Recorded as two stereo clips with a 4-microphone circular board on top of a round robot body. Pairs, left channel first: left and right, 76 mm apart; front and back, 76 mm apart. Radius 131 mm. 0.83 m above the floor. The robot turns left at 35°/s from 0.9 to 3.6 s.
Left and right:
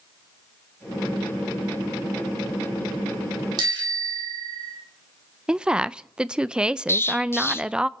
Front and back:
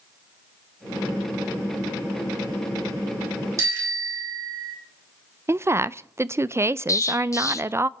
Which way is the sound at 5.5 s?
160° right.